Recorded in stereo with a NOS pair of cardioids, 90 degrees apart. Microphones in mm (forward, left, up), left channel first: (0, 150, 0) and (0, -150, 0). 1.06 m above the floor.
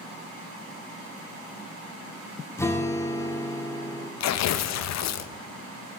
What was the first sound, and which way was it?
A guitar, 10° left.